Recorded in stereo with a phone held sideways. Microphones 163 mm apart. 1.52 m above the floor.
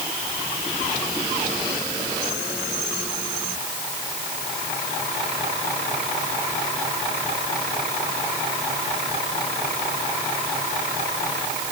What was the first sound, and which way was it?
Only background noise.